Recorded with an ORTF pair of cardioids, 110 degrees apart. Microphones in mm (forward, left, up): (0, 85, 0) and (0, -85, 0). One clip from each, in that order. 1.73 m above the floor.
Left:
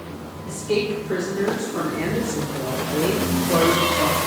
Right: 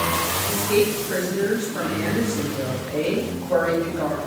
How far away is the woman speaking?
About 0.6 m.